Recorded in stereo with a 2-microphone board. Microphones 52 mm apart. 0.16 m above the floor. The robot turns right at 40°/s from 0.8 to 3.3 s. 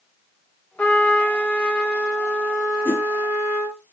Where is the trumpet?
120° left, 2 m; by 3.8 s 140° right, 2 m.